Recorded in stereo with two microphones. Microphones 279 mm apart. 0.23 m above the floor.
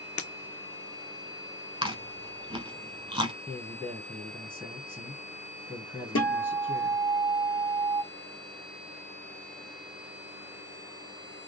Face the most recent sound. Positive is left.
turn(degrees=55)  # may be behind; listen again after turning